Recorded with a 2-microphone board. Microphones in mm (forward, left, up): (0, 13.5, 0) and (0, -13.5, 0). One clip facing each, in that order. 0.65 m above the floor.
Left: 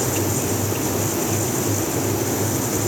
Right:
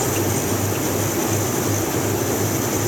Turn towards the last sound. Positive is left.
No sound to turn to.